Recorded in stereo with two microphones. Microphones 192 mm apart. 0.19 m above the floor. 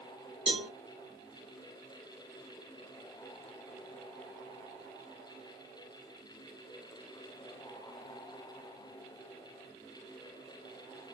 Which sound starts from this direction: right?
A cowbell, at 0.5 s.